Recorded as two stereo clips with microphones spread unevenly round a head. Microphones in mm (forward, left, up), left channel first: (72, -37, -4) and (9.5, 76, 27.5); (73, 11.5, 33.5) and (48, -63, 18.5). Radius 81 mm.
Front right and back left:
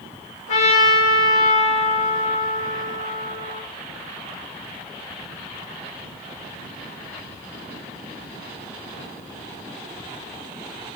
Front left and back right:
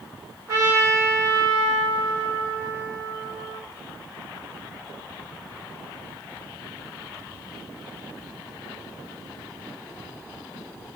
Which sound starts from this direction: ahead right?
A trumpet, at 0.5 s.